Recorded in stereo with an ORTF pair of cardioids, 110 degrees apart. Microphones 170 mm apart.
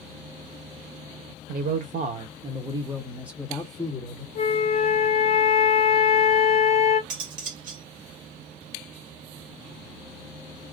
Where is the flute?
40° left, 1.2 m.